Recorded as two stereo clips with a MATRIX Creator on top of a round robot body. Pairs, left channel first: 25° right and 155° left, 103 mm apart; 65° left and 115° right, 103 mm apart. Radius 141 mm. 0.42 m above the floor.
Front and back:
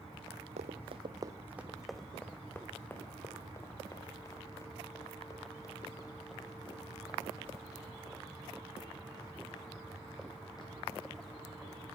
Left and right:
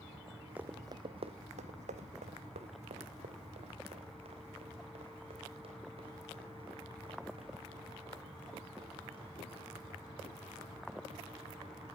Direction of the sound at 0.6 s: 170° left.